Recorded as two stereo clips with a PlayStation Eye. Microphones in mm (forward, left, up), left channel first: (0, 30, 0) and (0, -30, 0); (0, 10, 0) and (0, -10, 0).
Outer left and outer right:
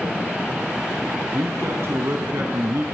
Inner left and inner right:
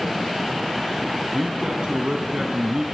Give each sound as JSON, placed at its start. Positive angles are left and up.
{"t": 1.3, "sound": "a man speaking", "side_deg": -45, "distance_m": 2.5}